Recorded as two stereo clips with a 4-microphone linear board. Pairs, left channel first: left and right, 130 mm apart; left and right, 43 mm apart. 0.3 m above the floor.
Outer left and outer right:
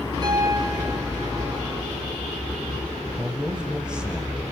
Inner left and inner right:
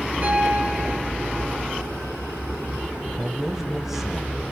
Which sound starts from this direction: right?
A piano, at 0.2 s.